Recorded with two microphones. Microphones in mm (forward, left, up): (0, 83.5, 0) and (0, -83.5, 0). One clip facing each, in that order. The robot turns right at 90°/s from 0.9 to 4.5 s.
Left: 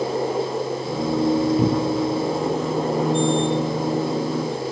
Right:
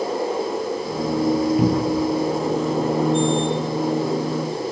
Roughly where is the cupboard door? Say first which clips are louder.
Right 1 dB; centre.